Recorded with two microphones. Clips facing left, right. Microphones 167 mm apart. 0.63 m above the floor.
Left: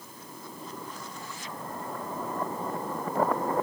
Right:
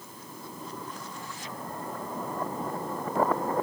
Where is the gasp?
I don't hear a gasp.